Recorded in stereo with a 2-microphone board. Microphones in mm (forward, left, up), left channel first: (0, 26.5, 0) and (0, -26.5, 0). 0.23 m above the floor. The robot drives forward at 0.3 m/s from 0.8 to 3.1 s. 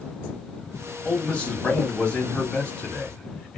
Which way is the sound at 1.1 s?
20° left (ahead or behind).